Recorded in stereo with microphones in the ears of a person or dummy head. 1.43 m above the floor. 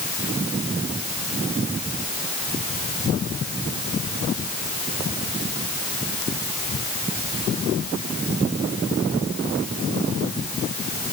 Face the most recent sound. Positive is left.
No sound to turn to.